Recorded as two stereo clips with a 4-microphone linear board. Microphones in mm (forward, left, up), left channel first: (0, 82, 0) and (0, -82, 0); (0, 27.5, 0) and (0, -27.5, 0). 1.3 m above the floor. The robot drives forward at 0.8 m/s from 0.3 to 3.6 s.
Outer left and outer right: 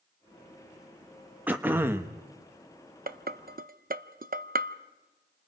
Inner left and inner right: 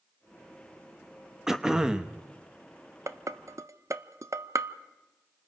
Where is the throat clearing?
10° right (ahead or behind), 1.1 m; by 2.1 s 15° right (ahead or behind), 0.6 m.